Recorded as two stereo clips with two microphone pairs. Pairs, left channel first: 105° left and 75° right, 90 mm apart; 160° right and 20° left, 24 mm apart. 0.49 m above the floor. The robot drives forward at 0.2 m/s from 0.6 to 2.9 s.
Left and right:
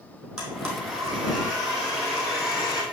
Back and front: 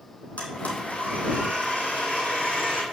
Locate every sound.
0.4 s a blender: 155° right, 3 m; by 2.8 s 160° right, 3.5 m